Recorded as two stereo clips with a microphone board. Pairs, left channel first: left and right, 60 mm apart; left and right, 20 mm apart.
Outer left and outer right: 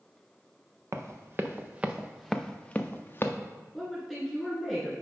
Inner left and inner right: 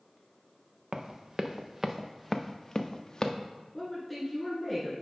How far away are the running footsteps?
About 0.9 m.